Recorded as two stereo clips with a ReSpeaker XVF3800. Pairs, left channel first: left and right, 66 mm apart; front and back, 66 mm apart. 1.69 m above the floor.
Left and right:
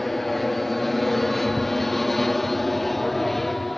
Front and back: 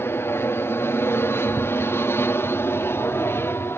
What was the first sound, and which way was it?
An aircraft, 5° left.